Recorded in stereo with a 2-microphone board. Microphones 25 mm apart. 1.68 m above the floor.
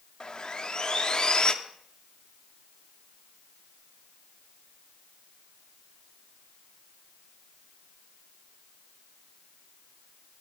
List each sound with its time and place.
0.2 s sawing: 30° left (ahead or behind), 0.8 m